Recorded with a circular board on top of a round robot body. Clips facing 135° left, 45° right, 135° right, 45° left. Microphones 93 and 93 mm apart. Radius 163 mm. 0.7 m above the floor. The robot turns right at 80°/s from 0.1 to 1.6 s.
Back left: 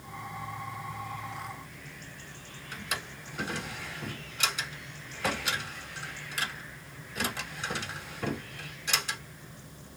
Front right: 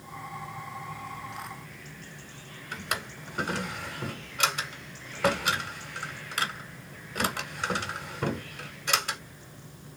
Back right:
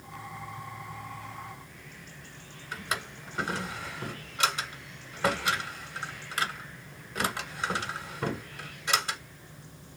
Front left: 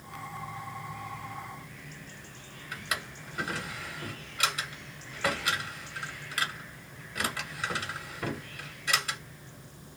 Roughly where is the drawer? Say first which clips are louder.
Front right 4 dB, back right 2 dB; right.